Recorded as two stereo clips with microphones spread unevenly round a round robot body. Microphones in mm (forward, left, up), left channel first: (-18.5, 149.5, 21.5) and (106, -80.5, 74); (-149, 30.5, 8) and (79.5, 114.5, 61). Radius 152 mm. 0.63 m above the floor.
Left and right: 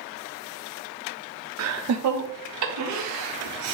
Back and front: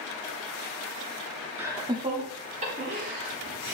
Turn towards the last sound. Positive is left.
turn(degrees=-45)